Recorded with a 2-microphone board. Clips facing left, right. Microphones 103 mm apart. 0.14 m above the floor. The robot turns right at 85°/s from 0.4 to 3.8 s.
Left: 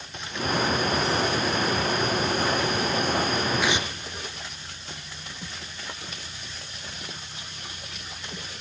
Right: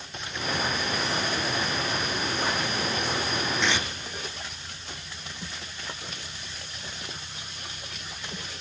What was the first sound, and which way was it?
Tearing paper, 5° left (ahead or behind).